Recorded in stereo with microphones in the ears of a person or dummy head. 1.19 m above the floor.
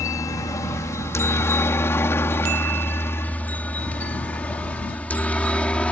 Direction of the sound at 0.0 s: 15° left (ahead or behind).